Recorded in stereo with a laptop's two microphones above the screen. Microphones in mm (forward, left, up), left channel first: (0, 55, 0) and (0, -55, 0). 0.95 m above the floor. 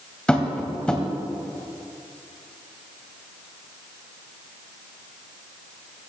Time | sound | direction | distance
0.3 | tapping | 10° left (ahead or behind) | 2.5 m